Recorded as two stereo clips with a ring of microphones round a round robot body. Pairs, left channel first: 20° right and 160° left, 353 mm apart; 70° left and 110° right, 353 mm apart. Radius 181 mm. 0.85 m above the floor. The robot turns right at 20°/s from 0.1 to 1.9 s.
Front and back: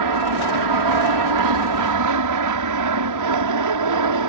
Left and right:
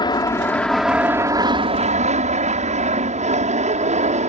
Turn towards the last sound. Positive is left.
turn(degrees=180)